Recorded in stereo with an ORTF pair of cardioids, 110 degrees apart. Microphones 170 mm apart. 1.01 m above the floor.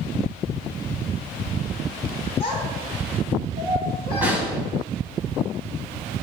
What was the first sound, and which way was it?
A child speaking, 30° left.